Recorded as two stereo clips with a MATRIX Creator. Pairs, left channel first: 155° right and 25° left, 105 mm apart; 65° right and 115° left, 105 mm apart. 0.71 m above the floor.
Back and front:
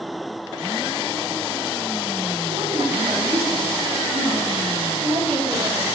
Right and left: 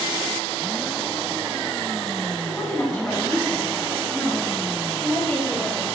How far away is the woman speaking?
About 2.5 m.